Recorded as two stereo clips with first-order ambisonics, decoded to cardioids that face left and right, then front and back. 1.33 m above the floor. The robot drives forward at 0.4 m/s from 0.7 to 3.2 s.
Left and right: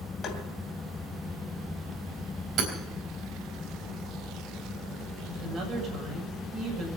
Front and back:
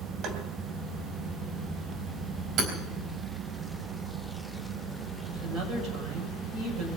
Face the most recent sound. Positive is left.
turn(degrees=-145)